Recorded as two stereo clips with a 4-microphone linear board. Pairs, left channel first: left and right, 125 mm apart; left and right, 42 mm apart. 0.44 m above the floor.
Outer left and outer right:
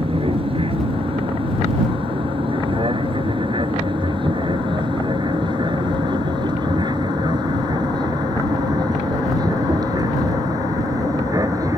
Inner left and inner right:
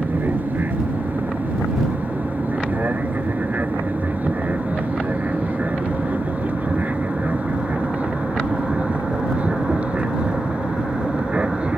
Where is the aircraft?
50° right (ahead or behind); by 11.8 s 30° right (ahead or behind).